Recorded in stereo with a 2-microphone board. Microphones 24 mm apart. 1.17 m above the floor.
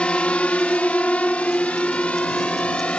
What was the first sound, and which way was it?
A drone, 50° left (ahead or behind).